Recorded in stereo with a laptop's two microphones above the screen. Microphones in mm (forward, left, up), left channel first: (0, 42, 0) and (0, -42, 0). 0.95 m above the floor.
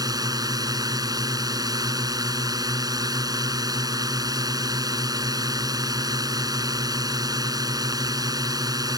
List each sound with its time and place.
0.0 s a drone: 50° right (ahead or behind)